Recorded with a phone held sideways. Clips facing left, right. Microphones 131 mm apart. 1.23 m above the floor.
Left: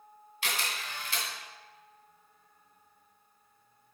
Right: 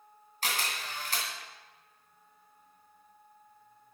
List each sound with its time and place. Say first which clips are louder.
0.4 s a camera shutter: right 1 dB; 45° right (ahead or behind), 2.5 m